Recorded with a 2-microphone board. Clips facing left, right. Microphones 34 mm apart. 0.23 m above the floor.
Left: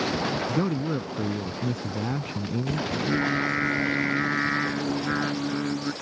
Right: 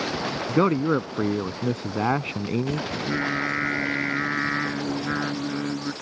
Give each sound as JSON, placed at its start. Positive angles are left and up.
{"t": 0.5, "sound": "a man speaking", "side_deg": -55}
{"t": 2.9, "sound": "singing", "side_deg": 0}